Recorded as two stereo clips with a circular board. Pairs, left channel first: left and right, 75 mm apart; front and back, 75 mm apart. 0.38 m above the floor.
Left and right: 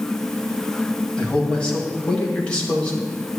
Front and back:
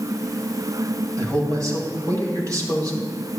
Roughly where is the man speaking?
Behind.